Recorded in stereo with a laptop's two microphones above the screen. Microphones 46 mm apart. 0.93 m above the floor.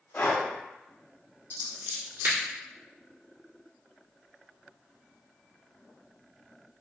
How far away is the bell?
No bell in this recording.